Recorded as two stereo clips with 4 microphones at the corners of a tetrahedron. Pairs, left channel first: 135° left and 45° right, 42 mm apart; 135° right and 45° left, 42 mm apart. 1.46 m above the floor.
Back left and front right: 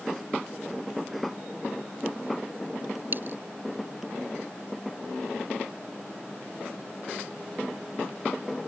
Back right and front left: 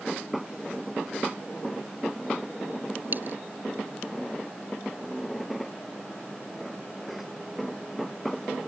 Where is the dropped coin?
Straight ahead.